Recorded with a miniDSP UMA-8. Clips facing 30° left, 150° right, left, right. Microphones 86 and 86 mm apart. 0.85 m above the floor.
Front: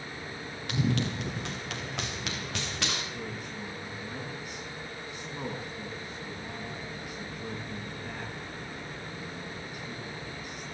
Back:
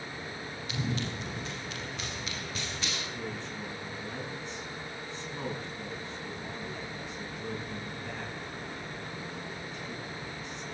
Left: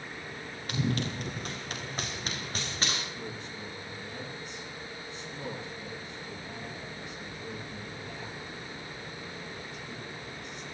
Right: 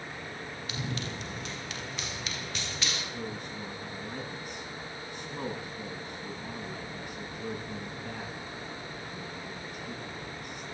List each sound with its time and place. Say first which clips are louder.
0.7 s running footsteps: front 5 dB, left 7 dB; 50° left, 6.5 m; by 3.0 s 40° left, 8 m
3.1 s a man speaking: even, right 2 dB; 55° right, 10 m